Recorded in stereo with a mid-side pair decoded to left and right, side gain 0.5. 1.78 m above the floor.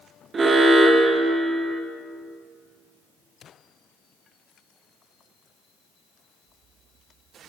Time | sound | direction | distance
0.3 | an alarm | 35° right | 1.6 m